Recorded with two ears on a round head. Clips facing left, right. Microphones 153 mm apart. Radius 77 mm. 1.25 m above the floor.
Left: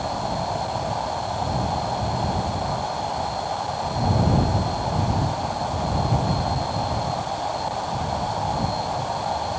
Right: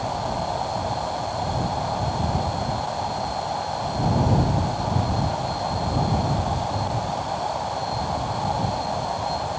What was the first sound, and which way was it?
Only background noise.